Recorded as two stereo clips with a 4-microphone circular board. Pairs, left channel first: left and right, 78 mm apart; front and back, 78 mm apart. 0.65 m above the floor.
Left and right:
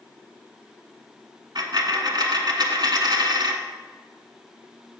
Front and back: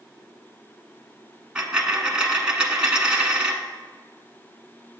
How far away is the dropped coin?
About 1.1 m.